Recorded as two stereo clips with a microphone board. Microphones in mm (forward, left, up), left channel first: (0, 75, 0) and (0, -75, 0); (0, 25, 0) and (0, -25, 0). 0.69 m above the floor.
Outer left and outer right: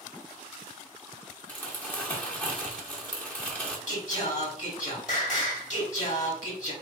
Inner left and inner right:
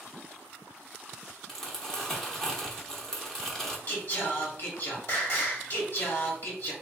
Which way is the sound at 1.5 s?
10° left (ahead or behind).